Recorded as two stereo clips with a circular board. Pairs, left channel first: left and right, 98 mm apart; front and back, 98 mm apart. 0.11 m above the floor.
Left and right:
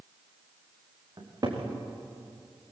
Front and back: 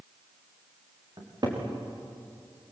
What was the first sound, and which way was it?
A cupboard door, 135° right.